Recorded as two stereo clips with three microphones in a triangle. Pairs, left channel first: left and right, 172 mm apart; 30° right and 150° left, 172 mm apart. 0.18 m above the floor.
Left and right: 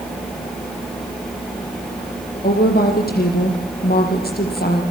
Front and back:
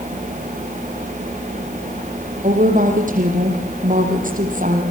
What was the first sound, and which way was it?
A woman speaking, 115° left.